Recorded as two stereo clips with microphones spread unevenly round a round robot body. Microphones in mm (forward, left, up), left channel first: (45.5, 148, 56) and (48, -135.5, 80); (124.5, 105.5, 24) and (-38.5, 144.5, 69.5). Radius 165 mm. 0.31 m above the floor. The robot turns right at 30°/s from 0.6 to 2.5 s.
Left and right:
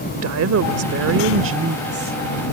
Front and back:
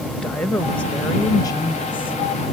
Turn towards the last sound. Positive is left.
turn(degrees=-25)